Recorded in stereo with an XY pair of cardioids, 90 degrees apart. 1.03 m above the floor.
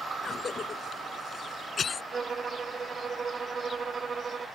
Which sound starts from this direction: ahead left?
A cough, at 0.2 s.